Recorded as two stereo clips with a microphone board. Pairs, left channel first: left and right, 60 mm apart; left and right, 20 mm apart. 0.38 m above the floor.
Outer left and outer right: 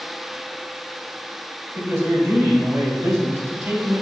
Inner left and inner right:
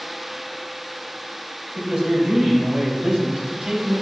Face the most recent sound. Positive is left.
turn(degrees=-50)  # may be behind; listen again after turning